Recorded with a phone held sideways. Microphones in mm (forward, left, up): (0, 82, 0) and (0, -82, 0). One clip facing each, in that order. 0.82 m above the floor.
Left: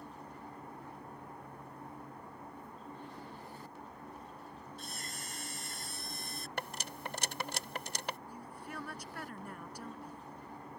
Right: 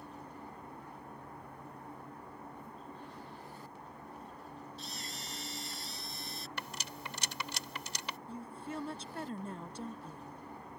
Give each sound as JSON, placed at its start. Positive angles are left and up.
{"t": 4.8, "sound": "a camera shutter", "side_deg": 55}
{"t": 6.6, "sound": "cutlery clinking", "side_deg": 55}
{"t": 8.3, "sound": "a woman speaking", "side_deg": -25}